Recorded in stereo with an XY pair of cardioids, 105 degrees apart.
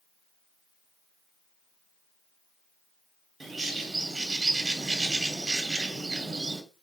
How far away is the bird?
About 1.2 m.